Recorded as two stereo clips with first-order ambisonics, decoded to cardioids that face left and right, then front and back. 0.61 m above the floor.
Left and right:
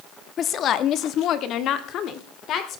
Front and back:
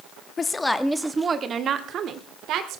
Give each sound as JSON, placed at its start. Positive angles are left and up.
{"t": 0.4, "sound": "a woman speaking", "azimuth_deg": 55, "distance_m": 1.1}